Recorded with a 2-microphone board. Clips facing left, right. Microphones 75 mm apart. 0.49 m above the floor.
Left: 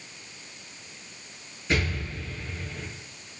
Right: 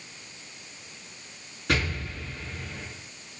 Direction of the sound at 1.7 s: 55° right (ahead or behind).